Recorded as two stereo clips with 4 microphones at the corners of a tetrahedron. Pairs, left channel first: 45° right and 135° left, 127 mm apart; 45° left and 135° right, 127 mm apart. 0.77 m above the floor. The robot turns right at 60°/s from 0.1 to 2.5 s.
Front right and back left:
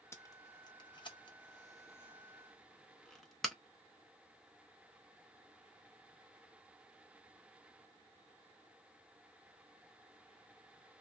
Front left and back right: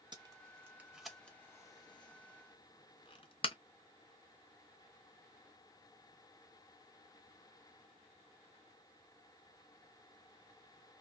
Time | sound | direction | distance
0.1 | tape being pulled | 100° right | 0.7 m